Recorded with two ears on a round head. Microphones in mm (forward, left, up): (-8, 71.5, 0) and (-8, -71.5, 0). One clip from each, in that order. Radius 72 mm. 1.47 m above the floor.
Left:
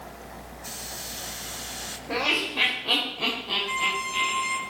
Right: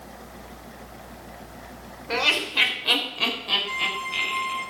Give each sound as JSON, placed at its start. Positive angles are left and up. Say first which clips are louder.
{"t": 2.1, "sound": "laughter", "louder": "right 3 dB", "side_deg": -75, "distance_m": 5.0}
{"t": 3.7, "sound": "a violin", "louder": "even", "side_deg": 10, "distance_m": 1.7}